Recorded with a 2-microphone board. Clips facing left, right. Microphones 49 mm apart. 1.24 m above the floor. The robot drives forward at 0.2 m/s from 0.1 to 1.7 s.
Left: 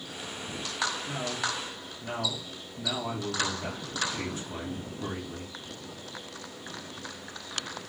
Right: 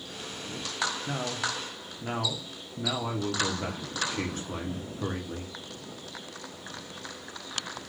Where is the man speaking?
50° right (ahead or behind), 0.8 m; by 5.5 s 45° right (ahead or behind), 0.8 m.